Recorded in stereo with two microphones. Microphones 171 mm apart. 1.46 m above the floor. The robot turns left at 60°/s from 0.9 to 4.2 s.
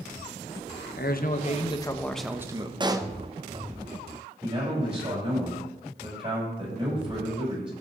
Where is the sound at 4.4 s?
30° right (ahead or behind), 7 m.